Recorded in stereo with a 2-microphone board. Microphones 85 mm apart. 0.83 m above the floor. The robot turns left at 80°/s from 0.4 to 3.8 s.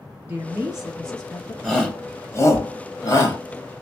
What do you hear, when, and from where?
0.3 s a woman speaking: 20° right (ahead or behind), 1.0 m; by 1.5 s 25° left (ahead or behind), 1.0 m
1.6 s a shout: centre (ahead or behind), 1.2 m; by 3.4 s 25° left (ahead or behind), 1.2 m